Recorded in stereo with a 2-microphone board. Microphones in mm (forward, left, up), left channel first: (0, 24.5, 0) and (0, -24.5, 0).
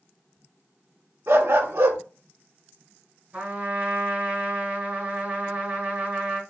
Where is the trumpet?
35° right (ahead or behind), 1.7 m.